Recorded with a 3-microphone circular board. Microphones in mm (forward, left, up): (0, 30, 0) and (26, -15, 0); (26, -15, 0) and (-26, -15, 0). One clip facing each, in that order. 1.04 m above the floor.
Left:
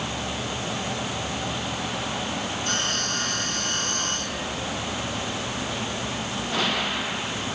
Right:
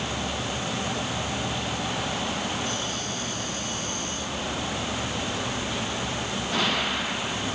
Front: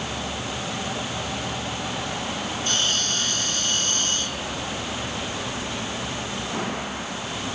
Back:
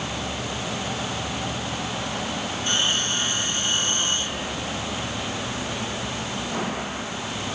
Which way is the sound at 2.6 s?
110° left.